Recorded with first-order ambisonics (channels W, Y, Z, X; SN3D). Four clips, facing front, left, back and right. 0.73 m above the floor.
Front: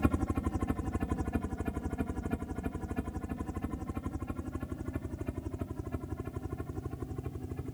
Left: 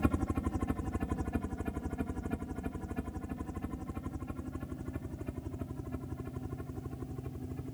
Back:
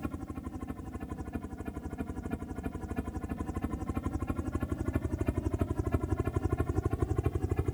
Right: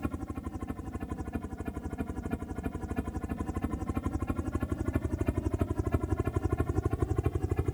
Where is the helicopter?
30° left; by 7.7 s 125° right.